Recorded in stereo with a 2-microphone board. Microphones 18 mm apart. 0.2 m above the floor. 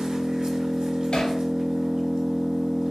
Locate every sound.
0.0 s an engine running: 60° right (ahead or behind), 0.7 m
1.1 s hammering: 60° left (ahead or behind), 0.8 m